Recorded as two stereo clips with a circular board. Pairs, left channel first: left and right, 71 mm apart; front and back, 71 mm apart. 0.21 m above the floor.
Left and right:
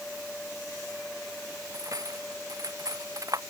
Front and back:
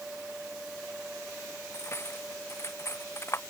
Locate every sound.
1.7 s cutlery clinking: 50° right